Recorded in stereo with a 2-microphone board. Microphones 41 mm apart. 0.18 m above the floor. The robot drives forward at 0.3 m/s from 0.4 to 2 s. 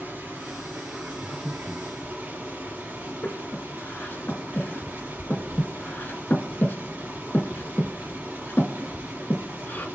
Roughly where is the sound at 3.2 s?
Left.